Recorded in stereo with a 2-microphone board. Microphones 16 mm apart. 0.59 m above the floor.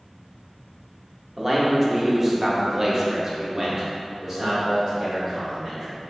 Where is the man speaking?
5° right (ahead or behind), 1.0 m; by 6.0 s 25° right (ahead or behind), 1.7 m.